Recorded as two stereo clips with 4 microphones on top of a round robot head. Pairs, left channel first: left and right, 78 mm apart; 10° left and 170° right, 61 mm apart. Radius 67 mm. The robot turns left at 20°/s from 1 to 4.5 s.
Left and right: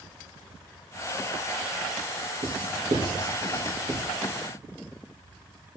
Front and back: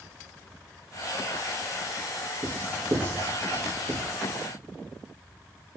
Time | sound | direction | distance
2.4 | writing | 100° right | 3 m